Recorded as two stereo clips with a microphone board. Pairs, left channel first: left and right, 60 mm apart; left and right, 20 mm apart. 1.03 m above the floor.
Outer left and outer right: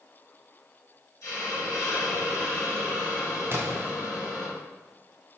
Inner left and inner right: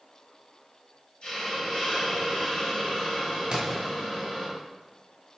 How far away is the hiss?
About 1.5 m.